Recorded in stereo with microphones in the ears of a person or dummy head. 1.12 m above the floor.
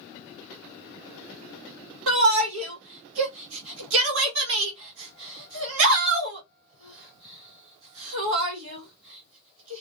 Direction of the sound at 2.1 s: 70° right (ahead or behind).